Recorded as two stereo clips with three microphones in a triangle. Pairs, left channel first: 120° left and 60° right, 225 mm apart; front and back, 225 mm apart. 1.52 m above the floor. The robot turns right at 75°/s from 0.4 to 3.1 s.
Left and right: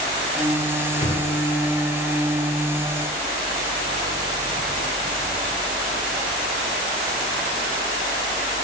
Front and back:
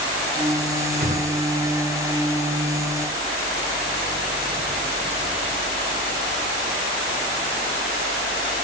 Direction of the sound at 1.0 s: 170° left.